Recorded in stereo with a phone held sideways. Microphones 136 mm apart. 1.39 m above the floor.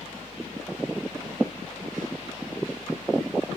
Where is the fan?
85° left.